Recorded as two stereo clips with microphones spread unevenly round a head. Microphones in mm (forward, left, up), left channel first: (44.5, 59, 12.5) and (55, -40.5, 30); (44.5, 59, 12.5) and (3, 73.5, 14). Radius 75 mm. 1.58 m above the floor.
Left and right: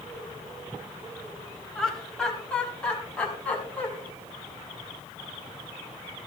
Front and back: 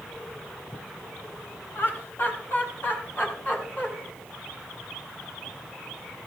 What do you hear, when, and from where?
1.8 s laughter: 10° left, 3 m; by 3.9 s 20° left, 5 m